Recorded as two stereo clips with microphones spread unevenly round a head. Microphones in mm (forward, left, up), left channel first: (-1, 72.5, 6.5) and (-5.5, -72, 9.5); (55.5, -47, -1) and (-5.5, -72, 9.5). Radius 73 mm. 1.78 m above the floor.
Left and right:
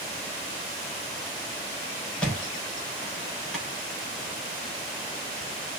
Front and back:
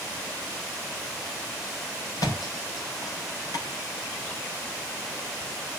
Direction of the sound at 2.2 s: 5° left.